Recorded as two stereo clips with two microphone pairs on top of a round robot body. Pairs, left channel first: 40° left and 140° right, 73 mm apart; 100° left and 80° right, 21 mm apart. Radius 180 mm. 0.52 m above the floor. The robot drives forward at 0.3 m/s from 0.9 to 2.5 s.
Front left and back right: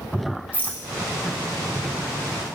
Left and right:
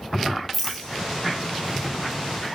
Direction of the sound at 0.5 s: 160° left.